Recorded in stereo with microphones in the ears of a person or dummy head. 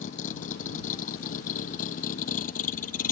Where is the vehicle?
50° left (ahead or behind).